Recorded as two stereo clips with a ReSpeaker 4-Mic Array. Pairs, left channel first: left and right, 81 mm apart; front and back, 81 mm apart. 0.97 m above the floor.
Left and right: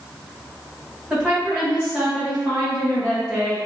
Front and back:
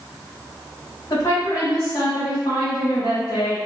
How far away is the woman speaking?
About 1.4 m.